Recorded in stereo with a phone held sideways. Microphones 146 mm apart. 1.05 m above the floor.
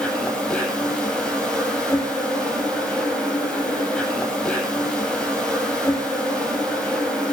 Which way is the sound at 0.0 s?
5° left (ahead or behind).